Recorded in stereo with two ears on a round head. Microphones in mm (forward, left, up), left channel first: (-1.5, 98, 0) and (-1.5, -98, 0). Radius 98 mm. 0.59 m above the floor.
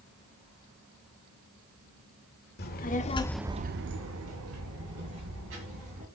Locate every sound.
2.6 s a child speaking: 50° left (ahead or behind), 1.5 m; by 6.0 s 70° right (ahead or behind), 4 m